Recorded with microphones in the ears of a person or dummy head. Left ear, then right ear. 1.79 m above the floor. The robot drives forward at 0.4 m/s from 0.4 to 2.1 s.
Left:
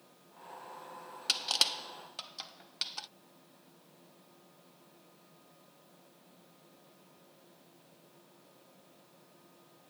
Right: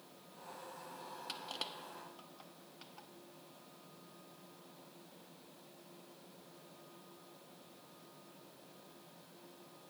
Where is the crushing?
55° left (ahead or behind); by 3.1 s 65° left (ahead or behind).